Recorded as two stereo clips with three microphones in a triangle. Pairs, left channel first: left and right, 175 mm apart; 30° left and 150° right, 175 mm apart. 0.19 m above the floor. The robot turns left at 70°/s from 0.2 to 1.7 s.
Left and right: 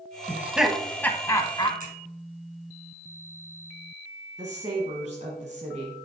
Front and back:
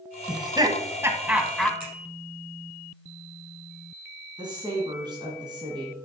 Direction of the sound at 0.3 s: 150° right.